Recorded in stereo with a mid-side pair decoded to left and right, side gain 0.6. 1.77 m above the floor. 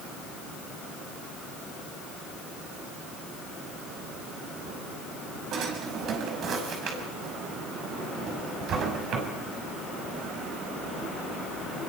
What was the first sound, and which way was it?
A drawer, 55° right.